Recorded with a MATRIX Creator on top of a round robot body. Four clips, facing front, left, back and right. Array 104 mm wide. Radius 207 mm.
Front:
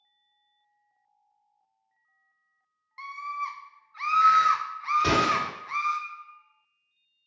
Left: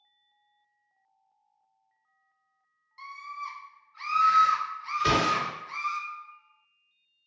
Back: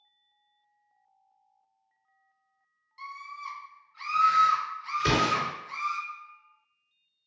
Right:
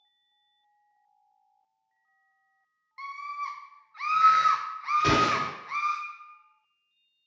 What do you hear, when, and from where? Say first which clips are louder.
3.0 s a scream: right 4 dB, front 7 dB; 35° right, 0.6 m
5.0 s an explosion: even, front 1 dB; 25° right, 1.3 m